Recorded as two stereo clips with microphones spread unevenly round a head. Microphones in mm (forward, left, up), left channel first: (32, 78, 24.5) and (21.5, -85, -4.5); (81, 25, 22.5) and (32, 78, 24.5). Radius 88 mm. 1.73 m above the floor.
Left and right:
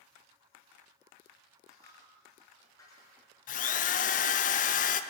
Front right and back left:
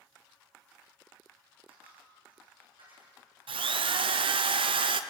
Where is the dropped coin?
155° left, 6.5 m.